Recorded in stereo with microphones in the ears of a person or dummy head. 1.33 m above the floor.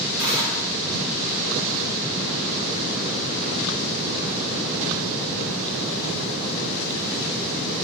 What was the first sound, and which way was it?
Tearing paper, 25° left (ahead or behind).